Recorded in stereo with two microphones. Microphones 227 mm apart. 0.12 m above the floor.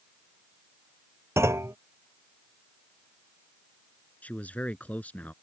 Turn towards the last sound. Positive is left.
turn(degrees=5)  # may be behind; listen again after turning